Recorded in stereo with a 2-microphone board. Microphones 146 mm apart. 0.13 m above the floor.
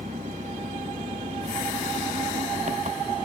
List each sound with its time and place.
0.0 s an engine running: 55° right (ahead or behind)